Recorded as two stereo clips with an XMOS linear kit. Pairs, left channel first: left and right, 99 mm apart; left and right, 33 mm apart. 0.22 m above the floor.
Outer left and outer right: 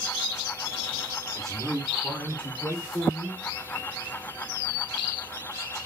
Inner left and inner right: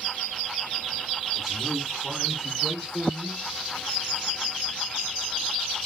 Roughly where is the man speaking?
Centre.